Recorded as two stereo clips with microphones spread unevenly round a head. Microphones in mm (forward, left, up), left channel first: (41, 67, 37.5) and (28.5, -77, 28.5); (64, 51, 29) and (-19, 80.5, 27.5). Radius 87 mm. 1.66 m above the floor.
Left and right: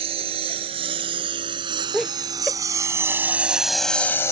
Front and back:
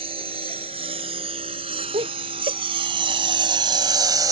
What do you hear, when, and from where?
0.0 s a lawn mower: 155° right; by 4.3 s 145° left
1.9 s laughter: 175° left